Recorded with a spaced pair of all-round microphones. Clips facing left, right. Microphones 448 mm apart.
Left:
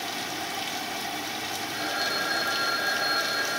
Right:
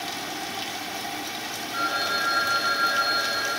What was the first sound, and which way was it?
A phone ringing, 85° right.